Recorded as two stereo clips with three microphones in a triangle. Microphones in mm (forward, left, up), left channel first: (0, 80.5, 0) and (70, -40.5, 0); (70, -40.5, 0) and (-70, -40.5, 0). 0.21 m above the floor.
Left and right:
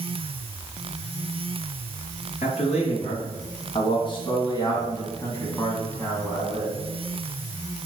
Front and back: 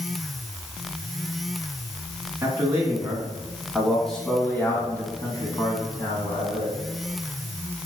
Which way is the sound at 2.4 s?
115° left.